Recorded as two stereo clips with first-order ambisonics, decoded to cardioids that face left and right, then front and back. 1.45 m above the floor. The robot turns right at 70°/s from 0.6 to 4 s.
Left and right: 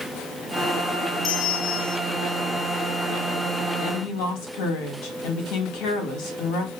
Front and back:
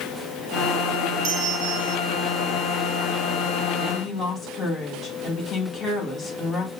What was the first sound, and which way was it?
A bell, 155° left.